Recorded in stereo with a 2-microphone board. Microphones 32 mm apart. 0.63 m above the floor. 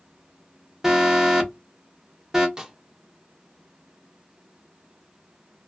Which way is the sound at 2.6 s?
20° right (ahead or behind).